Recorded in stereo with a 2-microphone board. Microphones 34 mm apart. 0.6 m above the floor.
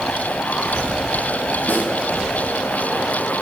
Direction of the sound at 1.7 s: 70° left (ahead or behind).